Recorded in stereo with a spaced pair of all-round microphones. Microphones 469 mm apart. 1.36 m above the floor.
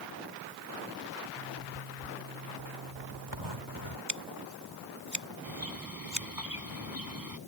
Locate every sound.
1.4 s a zipper: 70° right (ahead or behind)
4.1 s scissors: 65° right (ahead or behind)
5.4 s a bird: 45° right (ahead or behind)